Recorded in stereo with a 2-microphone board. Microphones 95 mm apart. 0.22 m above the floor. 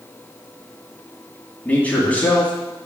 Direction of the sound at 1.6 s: 15° left (ahead or behind).